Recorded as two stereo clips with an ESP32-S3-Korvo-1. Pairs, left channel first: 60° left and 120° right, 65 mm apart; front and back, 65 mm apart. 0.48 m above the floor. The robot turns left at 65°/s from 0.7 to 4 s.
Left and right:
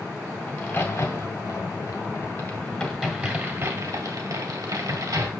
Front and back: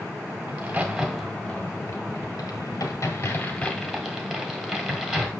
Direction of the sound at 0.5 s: 115° left.